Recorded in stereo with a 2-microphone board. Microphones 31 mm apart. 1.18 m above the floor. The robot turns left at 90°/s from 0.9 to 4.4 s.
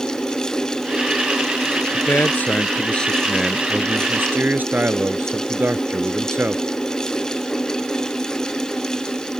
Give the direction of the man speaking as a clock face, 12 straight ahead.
8 o'clock.